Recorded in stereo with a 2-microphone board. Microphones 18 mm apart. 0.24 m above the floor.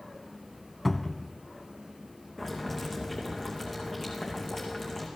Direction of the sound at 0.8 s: 5° left (ahead or behind).